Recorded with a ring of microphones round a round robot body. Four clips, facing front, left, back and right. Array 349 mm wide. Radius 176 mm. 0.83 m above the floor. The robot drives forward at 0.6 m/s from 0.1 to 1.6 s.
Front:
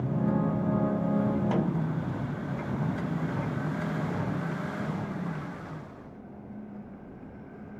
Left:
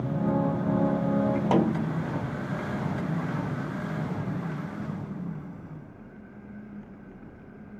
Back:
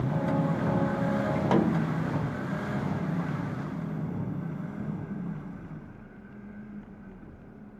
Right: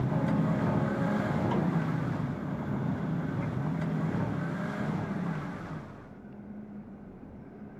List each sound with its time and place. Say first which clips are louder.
1.5 s a snare drum: left 6 dB, back 4 dB; 120° left, 0.5 m; by 1.9 s 125° left, 0.5 m